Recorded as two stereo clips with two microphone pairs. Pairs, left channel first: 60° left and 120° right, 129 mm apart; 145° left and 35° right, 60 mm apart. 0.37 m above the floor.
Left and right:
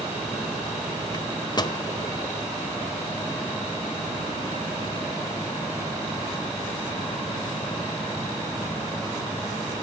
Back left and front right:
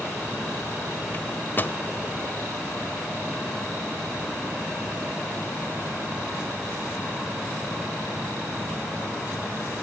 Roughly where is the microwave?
Left.